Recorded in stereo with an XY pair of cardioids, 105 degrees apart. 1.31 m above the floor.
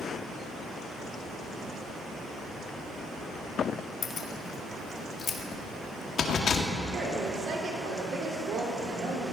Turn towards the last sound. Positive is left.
turn(degrees=-70)